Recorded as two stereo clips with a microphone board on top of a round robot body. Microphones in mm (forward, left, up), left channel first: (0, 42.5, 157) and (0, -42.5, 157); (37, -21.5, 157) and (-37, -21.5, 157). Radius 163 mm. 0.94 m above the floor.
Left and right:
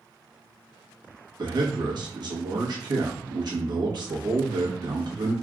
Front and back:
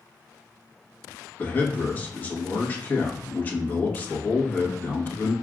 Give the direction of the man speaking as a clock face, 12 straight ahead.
2 o'clock.